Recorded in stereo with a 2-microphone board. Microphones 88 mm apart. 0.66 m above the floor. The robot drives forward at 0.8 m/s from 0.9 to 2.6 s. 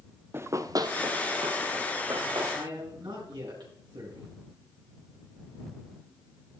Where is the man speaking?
65° right (ahead or behind), 6.5 m.